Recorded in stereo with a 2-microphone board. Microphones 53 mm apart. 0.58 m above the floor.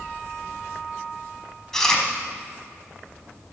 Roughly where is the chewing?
Centre.